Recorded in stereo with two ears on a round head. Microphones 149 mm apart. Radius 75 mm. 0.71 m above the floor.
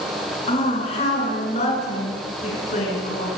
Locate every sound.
0.5 s a woman speaking: 35° left (ahead or behind), 9 m; by 3.3 s 50° left (ahead or behind), 9 m